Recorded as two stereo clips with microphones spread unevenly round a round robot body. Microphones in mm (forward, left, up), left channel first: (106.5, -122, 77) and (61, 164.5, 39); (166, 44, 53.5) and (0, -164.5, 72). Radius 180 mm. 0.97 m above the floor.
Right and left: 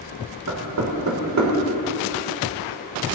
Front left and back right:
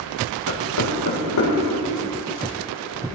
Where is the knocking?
70° left, 3.5 m.